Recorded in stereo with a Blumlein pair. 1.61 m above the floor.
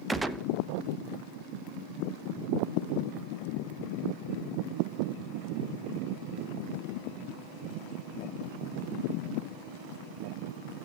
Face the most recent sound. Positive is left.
turn(degrees=-5)